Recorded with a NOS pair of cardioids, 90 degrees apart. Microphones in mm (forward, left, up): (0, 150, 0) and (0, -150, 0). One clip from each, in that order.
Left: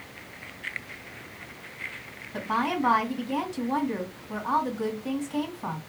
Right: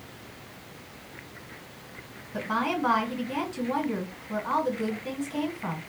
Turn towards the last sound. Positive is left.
turn(degrees=5)